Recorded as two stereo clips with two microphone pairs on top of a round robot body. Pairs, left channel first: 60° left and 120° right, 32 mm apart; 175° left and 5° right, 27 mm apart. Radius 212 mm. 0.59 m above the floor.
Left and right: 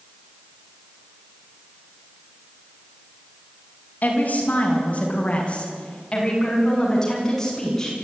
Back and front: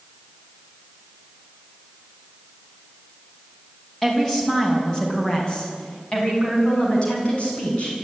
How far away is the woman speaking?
About 5.5 m.